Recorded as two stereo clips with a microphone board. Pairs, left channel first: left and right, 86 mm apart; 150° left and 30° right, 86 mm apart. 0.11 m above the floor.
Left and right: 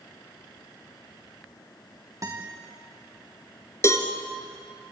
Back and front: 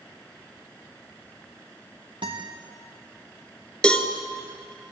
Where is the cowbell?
80° left, 1.7 m.